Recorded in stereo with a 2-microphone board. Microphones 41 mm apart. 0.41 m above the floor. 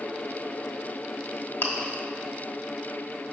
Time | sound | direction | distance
1.6 | chewing | 55° left (ahead or behind) | 1.1 m